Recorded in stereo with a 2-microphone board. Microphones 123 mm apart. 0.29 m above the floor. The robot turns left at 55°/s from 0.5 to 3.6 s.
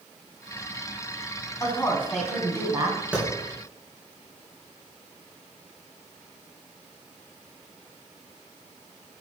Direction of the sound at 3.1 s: 10° right (ahead or behind).